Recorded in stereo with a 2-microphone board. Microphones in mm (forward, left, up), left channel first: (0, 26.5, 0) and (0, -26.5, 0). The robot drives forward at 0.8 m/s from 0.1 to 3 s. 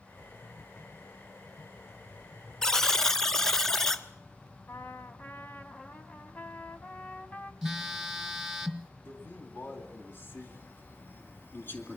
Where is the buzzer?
15° left (ahead or behind), 0.9 m; by 4.0 s 10° left (ahead or behind), 1.2 m.